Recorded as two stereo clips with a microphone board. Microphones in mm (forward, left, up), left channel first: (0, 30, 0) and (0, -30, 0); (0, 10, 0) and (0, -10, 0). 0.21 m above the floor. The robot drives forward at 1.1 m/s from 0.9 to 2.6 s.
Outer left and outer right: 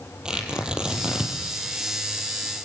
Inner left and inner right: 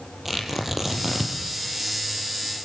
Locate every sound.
0.2 s tearing paper: 15° right (ahead or behind), 5 m